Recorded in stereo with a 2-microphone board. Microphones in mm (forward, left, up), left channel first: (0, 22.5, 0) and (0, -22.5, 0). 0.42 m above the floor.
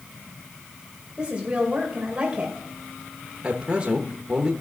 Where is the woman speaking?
20° right (ahead or behind), 2 m.